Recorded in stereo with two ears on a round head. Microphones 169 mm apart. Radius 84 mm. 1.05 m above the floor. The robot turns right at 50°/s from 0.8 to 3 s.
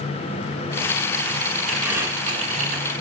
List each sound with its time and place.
1.7 s crumpling: straight behind, 5 m; by 2.8 s 125° right, 5 m